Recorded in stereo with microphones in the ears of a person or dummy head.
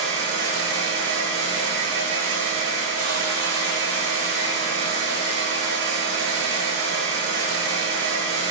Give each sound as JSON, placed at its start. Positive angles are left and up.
{"t": 0.0, "sound": "a fan", "side_deg": -80, "distance_m": 3.5}